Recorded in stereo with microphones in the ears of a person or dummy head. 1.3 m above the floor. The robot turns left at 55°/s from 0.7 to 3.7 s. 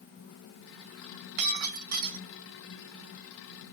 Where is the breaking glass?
65° right, 2.5 m; by 2.2 s 115° right, 2.5 m.